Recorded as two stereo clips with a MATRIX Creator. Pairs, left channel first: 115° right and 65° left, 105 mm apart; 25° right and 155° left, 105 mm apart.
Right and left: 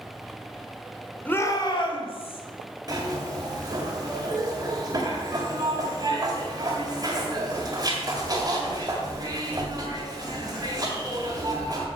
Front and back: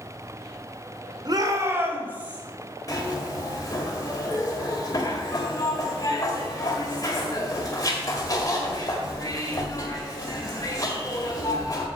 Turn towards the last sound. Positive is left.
turn(degrees=30)